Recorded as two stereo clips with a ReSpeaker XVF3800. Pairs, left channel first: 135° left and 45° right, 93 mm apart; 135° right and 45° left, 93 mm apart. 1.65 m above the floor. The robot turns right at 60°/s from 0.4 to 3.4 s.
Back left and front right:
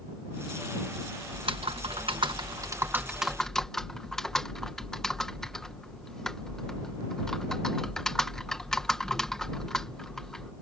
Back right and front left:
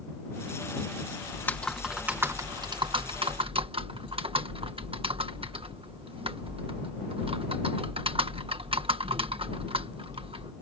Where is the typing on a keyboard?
75° right; by 10.5 s 50° left.